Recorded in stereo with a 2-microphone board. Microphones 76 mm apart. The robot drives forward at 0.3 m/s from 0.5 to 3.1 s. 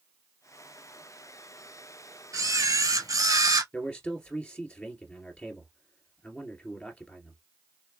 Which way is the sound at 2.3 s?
50° right (ahead or behind).